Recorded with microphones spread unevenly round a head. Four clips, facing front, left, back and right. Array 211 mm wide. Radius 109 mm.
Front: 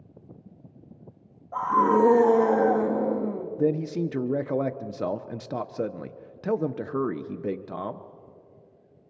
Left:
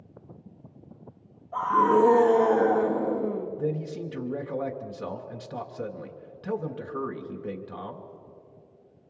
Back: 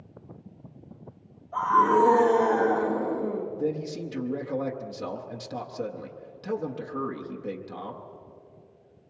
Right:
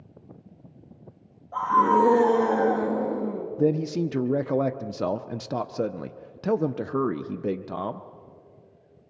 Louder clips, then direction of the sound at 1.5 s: Right 1 dB, back 1 dB; 30° right.